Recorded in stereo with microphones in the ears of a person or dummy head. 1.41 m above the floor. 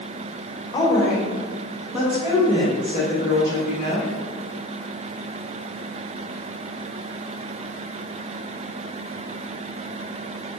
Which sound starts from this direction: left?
A woman speaking, at 0.7 s.